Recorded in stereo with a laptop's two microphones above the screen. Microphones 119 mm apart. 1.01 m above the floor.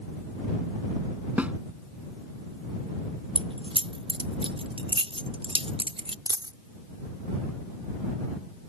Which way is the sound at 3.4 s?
50° right (ahead or behind).